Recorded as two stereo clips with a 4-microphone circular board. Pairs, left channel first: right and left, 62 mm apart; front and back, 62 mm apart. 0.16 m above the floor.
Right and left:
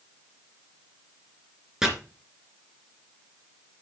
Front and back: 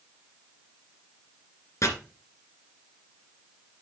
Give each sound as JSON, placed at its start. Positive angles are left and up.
{"t": 1.8, "sound": "chopping", "azimuth_deg": 10, "distance_m": 2.5}